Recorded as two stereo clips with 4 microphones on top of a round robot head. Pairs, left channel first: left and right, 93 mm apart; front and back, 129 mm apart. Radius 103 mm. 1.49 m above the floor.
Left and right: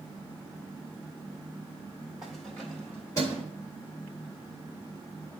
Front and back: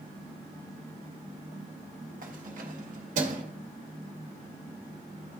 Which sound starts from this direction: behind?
Keys jangling, at 2.2 s.